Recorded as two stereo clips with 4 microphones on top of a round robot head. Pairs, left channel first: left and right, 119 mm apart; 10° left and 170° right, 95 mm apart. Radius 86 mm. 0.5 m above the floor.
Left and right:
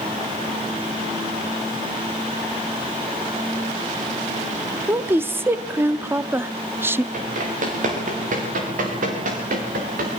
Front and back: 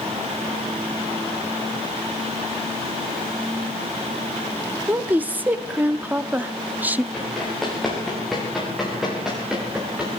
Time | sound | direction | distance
4.9 | a woman speaking | 130° right | 0.7 m
7.1 | running footsteps | 80° right | 7.5 m